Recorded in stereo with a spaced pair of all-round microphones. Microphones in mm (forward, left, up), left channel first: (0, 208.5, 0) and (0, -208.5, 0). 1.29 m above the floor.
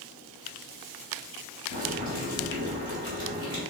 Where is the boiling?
60° left (ahead or behind), 4 m.